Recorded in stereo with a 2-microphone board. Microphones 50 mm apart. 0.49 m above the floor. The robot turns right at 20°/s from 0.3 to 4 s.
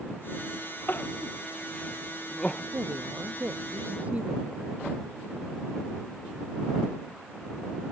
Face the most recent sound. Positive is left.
turn(degrees=-30)  # may be behind; listen again after turning